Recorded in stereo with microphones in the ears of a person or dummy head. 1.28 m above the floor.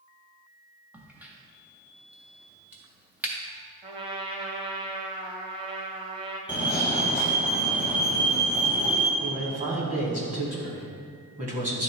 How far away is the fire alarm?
About 1.0 m.